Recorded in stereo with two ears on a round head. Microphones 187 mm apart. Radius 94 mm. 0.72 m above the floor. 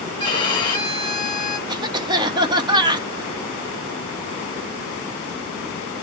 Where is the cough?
20° right (ahead or behind), 0.6 m.